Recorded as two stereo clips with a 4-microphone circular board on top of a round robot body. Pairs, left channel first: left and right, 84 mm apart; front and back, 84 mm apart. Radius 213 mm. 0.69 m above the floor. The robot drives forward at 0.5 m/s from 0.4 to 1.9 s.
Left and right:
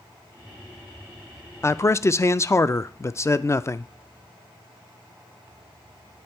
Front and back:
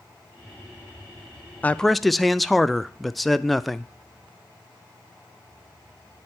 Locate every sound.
1.6 s a man speaking: 60° left, 0.6 m; by 3.9 s 90° left, 0.6 m